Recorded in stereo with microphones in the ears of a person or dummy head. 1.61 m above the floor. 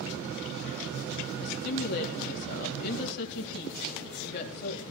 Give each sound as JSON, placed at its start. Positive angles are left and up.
{"t": 1.4, "sound": "a woman speaking", "side_deg": 60, "distance_m": 2.5}